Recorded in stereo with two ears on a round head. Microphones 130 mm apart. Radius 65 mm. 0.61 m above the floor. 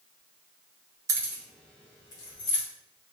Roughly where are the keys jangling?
Right.